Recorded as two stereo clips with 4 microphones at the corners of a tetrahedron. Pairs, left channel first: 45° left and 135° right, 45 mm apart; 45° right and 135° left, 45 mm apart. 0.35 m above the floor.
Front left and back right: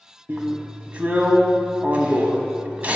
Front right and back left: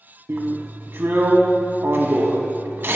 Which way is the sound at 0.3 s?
170° left.